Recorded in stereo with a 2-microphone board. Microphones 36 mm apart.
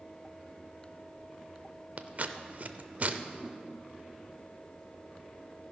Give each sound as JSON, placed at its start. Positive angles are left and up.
{"t": 2.0, "sound": "scissors", "side_deg": -50, "distance_m": 0.5}
{"t": 3.4, "sound": "a whoosh", "side_deg": -20, "distance_m": 1.0}